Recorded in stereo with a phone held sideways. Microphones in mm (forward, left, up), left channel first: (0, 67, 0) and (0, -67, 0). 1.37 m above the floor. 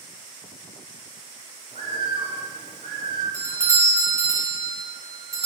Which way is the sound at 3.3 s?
20° right (ahead or behind).